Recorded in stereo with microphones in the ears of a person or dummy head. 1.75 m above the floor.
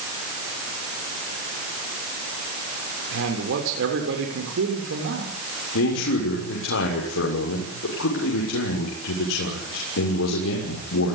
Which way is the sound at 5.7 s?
85° left.